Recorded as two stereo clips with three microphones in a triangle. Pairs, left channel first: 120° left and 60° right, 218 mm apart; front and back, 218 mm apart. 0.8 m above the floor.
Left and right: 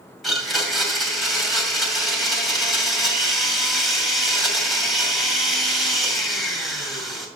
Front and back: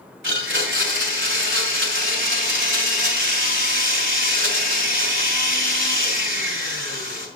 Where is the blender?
150° right, 2.5 m.